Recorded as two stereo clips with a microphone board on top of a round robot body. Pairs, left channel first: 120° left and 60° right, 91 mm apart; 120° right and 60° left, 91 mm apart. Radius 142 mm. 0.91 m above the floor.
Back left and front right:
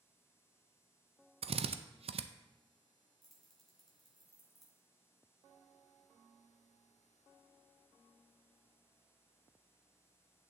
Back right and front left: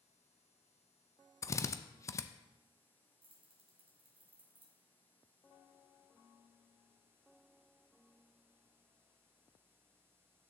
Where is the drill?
60° right, 0.6 m.